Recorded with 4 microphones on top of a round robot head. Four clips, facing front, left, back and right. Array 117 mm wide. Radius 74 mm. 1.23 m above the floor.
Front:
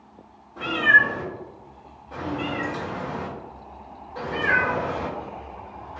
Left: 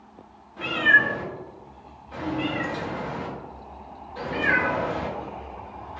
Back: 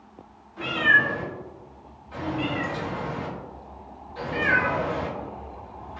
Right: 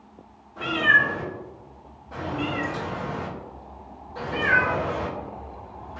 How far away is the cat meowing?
About 2.0 m.